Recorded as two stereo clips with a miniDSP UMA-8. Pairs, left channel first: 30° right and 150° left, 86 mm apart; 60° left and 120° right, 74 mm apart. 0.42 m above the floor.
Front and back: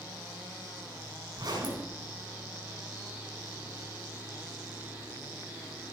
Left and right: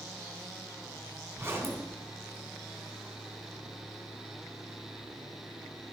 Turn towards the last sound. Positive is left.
turn(degrees=-175)